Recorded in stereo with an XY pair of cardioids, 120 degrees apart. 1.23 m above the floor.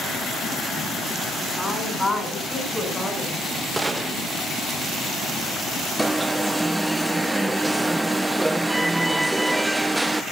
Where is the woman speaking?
10° left, 10 m; by 3.4 s 5° left, 9.5 m.